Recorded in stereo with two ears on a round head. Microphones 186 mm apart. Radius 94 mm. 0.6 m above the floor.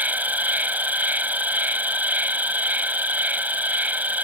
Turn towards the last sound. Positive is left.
turn(degrees=-10)  # may be behind; listen again after turning